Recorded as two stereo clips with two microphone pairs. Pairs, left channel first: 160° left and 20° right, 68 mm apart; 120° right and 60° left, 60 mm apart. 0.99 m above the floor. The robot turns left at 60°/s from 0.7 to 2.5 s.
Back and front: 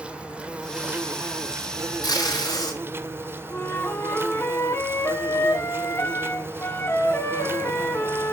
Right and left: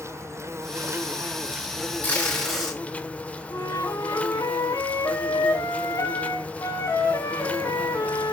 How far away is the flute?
About 3.5 m.